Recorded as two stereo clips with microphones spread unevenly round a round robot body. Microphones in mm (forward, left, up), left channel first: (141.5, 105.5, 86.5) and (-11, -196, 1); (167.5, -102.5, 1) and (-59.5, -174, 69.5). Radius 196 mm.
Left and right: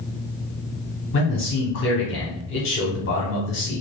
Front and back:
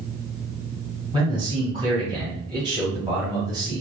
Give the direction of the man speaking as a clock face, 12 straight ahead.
8 o'clock.